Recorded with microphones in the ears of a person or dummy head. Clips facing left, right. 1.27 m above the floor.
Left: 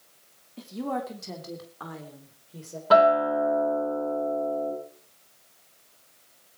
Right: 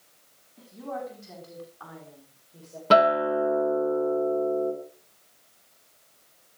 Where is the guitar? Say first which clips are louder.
Left 1 dB; 35° right (ahead or behind), 3.5 m.